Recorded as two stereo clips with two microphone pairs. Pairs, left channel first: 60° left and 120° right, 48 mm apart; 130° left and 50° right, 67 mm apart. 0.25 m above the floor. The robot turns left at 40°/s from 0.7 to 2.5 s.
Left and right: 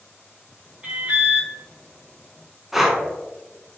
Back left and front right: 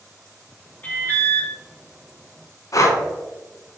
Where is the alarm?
175° right, 1.9 m; by 1.5 s 160° left, 1.9 m.